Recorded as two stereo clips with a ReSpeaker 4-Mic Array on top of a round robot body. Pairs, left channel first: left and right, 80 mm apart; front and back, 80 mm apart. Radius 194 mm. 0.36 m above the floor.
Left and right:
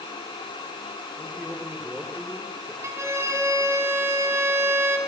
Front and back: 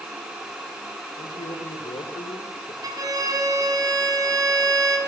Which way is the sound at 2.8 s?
145° right.